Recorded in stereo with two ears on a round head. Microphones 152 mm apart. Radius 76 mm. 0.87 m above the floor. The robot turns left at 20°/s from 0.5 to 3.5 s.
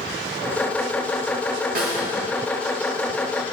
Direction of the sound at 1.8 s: 50° right (ahead or behind).